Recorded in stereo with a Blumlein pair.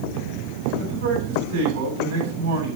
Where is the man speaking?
45° right, 9.5 m.